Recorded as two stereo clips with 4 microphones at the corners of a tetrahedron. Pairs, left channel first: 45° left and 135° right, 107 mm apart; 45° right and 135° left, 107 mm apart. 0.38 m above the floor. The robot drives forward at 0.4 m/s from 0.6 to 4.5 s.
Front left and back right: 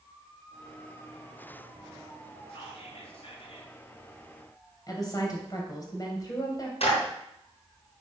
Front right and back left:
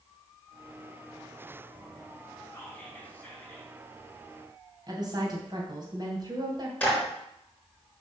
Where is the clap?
30° left, 4 m.